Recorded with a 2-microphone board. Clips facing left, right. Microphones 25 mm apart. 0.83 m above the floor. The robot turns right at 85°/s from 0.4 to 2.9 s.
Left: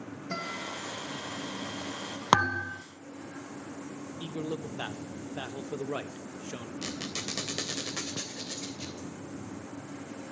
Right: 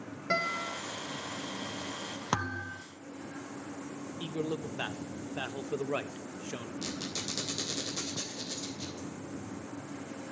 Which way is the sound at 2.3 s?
130° left.